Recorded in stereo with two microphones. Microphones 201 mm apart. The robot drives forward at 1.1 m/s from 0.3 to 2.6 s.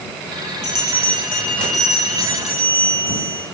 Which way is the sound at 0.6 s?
55° left (ahead or behind).